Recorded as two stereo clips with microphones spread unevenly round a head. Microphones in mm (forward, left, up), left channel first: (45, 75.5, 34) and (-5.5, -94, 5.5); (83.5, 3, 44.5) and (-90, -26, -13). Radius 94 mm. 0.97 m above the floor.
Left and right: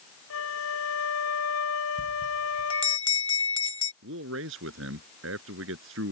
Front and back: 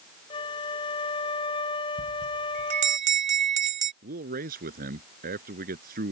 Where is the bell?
140° left.